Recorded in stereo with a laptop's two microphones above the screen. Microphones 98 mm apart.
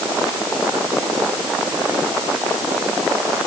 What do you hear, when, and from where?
Only background noise.